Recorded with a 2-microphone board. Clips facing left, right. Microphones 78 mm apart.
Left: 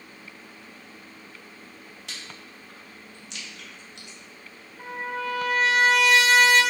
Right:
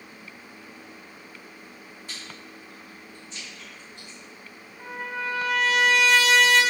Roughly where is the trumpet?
Left.